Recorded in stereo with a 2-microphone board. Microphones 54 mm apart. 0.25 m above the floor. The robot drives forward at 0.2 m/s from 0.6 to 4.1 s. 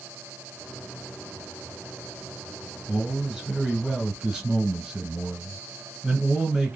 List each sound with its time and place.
2.9 s a man speaking: 15° right (ahead or behind), 1.5 m